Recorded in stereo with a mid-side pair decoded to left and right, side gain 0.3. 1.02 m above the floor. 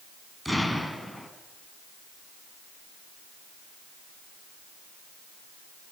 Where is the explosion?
Straight ahead, 5.5 m.